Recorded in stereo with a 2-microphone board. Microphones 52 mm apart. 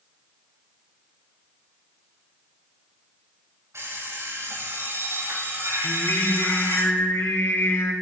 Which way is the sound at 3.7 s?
70° right (ahead or behind).